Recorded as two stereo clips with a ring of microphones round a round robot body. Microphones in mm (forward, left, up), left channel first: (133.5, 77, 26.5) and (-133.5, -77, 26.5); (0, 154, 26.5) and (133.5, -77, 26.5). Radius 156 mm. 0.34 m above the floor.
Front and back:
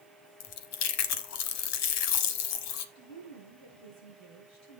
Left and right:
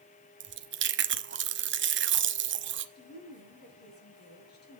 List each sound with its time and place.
0.4 s chewing: 10° right, 0.8 m
3.0 s a woman speaking: 70° left, 6.5 m